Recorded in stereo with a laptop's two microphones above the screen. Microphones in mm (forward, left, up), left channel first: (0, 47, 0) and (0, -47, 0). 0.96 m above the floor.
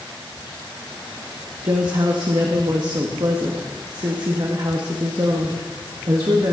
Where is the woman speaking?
45° right (ahead or behind), 1.1 m.